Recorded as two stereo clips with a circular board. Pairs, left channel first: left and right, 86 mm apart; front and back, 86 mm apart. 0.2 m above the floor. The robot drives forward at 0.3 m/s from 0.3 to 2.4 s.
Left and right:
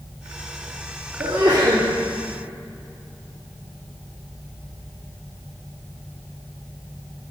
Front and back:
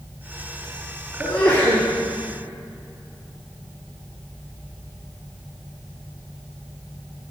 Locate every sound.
1.2 s a sneeze: 75° right, 3.5 m; by 1.8 s 80° right, 3.5 m